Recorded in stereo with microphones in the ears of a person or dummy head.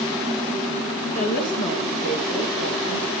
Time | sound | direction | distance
1.1 | a woman speaking | 40° left (ahead or behind) | 2.0 m